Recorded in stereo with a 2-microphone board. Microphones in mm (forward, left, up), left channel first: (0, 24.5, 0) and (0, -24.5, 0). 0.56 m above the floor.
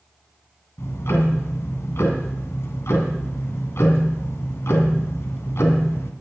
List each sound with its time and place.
0.8 s ticking: 70° left (ahead or behind), 2 m